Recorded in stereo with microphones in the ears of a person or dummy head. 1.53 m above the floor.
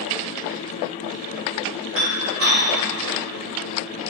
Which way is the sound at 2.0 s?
70° right (ahead or behind).